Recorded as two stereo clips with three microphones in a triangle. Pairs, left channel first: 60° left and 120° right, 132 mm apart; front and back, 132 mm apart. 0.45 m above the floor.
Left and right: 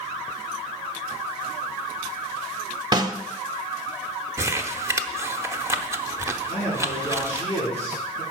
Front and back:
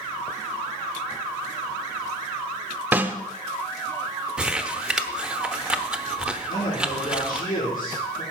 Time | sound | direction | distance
2.9 | a snare drum | 120° right | 0.9 m
4.4 | crumpling | 110° right | 0.8 m
6.5 | a man speaking | 15° left | 7 m